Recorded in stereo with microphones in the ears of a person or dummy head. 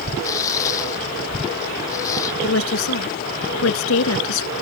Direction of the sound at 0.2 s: 20° left (ahead or behind).